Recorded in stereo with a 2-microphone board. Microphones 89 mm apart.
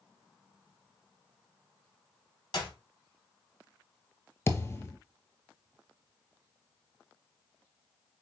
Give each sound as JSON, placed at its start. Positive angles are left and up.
{"t": 2.5, "sound": "a clap", "side_deg": 55, "distance_m": 2.0}
{"t": 4.5, "sound": "a thud", "side_deg": 30, "distance_m": 0.9}